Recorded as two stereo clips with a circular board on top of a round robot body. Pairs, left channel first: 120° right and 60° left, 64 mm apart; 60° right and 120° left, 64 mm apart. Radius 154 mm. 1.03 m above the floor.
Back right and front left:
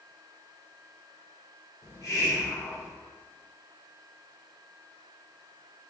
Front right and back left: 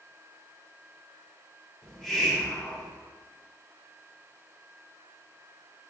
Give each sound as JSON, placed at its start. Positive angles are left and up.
{"t": 1.8, "sound": "a hiss", "azimuth_deg": -145, "distance_m": 0.8}